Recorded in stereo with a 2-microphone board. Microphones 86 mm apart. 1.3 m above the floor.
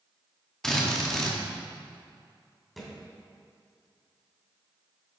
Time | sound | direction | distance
0.6 | a drill | 5° left (ahead or behind) | 1.2 m
2.8 | a thud | centre (ahead or behind) | 2.5 m